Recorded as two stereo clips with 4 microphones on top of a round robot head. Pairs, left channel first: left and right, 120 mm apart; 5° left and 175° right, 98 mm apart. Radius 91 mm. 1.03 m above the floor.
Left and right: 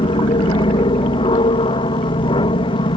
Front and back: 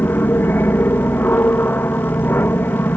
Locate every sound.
0.0 s an aircraft: 70° left